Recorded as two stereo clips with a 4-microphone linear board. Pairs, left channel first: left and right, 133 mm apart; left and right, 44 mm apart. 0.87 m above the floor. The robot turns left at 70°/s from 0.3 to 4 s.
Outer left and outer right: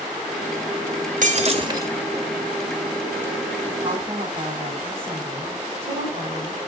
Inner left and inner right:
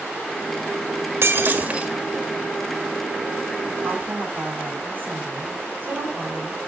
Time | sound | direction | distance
1.2 | breaking glass | 115° right | 1.6 m
3.8 | a woman speaking | 30° right (ahead or behind) | 5.5 m